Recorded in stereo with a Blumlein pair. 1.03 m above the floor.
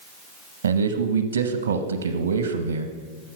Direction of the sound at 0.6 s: 70° right.